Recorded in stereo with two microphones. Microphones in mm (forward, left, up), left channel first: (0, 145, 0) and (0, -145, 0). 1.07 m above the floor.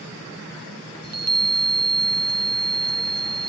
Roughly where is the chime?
Right.